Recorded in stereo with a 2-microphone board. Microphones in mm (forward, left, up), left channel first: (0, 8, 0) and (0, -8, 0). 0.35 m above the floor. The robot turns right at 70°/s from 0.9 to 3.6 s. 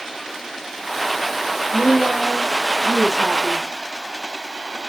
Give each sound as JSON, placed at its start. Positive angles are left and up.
{"t": 1.7, "sound": "a woman speaking", "azimuth_deg": -155, "distance_m": 5.0}